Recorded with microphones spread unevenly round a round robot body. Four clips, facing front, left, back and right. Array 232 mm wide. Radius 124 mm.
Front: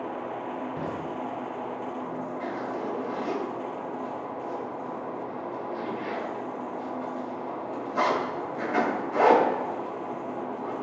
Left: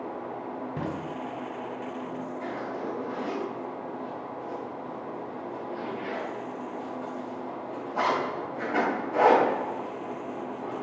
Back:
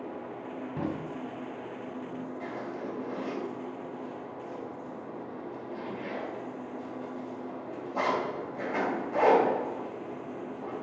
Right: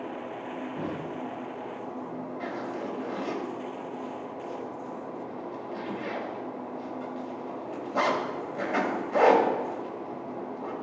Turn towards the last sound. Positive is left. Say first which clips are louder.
# even, front 6 dB
turn(degrees=-90)